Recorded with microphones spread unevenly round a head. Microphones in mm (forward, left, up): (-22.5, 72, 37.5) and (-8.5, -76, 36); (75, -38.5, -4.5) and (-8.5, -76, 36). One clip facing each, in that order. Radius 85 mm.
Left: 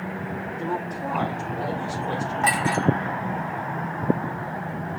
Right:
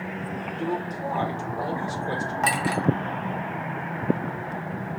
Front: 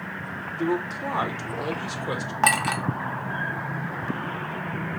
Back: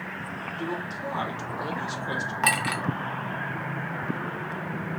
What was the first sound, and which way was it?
A man speaking, 15° right.